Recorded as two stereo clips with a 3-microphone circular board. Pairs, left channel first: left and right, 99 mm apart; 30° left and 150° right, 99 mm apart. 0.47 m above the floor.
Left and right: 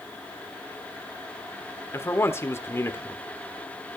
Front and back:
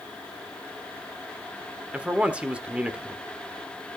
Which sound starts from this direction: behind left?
A man speaking, at 1.9 s.